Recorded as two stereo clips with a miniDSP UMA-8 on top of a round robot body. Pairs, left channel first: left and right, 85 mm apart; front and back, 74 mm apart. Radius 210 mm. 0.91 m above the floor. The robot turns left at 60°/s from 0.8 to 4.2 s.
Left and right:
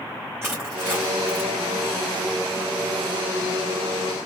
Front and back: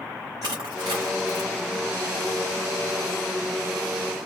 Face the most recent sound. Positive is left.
turn(degrees=5)